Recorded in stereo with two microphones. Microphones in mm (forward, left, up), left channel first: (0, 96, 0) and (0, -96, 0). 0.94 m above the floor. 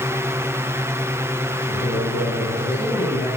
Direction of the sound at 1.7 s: 65° left (ahead or behind).